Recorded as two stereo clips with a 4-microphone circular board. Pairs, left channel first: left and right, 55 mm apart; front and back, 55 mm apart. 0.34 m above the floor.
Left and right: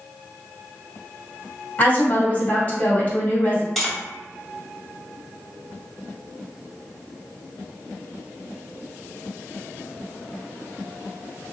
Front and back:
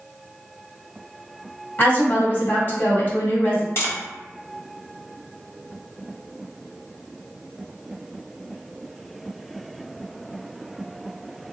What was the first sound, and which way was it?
A woman speaking, 40° left.